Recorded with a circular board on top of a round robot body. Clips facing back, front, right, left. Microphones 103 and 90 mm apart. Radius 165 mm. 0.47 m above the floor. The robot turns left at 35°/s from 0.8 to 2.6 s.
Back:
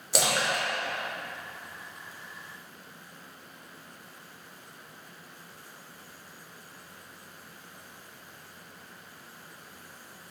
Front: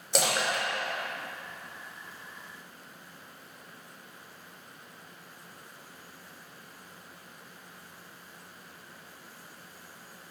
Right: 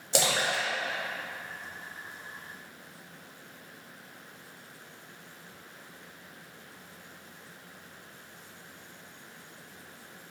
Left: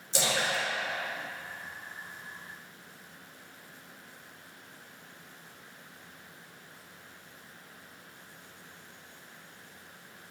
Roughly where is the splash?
Right.